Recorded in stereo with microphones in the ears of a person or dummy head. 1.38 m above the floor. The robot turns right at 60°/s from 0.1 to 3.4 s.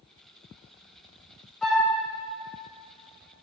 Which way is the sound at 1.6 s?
10° left (ahead or behind).